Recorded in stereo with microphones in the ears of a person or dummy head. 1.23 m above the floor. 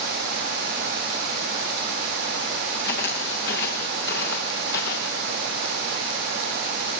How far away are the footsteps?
About 6 m.